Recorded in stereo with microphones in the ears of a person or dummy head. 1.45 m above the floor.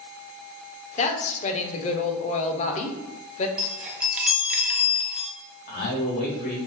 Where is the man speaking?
45° left (ahead or behind), 1.7 m.